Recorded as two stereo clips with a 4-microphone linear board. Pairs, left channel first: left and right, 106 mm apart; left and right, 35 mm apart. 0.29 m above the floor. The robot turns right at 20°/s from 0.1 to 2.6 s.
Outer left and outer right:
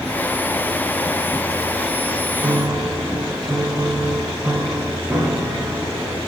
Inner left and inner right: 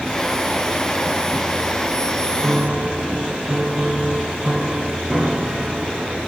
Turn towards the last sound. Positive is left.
turn(degrees=-20)  # may be behind; listen again after turning